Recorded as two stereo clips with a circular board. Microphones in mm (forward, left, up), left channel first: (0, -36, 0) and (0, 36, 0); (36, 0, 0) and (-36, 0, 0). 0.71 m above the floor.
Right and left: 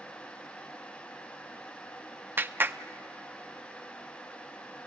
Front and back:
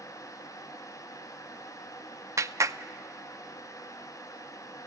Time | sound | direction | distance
2.4 | a clap | 145° left | 0.5 m